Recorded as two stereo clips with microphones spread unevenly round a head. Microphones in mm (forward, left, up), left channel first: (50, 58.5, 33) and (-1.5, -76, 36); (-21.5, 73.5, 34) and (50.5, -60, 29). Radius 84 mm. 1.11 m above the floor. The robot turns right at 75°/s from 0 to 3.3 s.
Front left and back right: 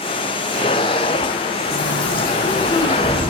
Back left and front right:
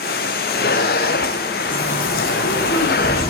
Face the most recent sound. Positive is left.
turn(degrees=175)